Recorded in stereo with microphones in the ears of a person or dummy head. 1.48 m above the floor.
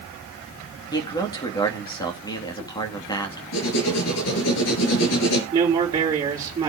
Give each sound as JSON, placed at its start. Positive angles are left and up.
{"t": 0.9, "sound": "a man speaking", "side_deg": 20, "distance_m": 2.0}
{"t": 3.5, "sound": "writing", "side_deg": 70, "distance_m": 5.0}
{"t": 5.5, "sound": "a man speaking", "side_deg": -25, "distance_m": 3.5}